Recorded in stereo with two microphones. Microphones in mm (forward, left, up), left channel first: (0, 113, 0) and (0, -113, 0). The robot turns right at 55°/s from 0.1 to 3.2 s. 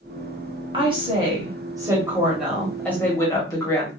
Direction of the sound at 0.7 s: 20° right (ahead or behind).